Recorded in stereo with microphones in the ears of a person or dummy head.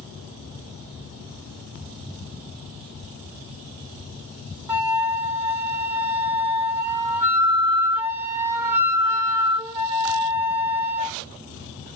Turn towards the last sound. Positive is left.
turn(degrees=-10)  # may be behind; listen again after turning